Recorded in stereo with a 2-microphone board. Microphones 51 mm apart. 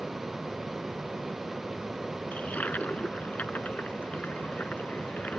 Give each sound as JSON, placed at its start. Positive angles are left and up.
{"t": 2.3, "sound": "a toilet flushing", "side_deg": 30}